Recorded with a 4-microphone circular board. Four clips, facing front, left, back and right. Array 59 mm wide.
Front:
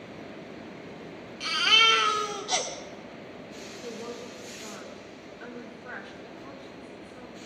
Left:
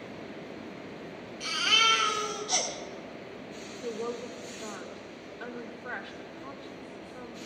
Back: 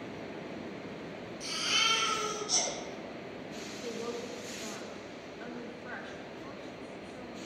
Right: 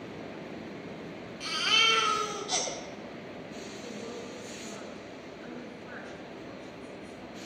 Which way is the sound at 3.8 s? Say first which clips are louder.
Left 9 dB, back 1 dB; 90° left.